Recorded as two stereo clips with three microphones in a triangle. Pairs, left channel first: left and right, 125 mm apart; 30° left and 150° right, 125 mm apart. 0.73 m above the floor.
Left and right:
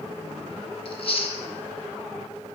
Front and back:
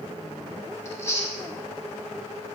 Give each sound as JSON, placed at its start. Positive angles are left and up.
{"t": 0.8, "sound": "chewing", "azimuth_deg": 90, "distance_m": 0.9}